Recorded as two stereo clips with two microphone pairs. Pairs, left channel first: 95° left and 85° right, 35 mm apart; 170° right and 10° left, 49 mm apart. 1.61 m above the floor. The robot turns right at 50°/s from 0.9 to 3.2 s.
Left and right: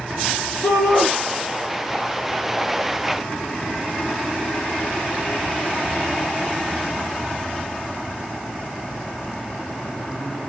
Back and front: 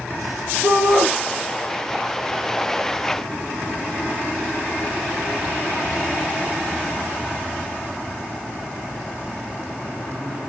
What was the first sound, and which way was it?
A shout, 75° left.